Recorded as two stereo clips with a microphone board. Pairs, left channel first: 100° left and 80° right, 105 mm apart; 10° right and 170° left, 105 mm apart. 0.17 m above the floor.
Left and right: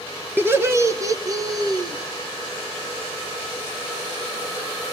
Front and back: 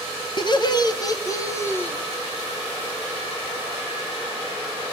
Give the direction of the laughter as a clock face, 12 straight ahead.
1 o'clock.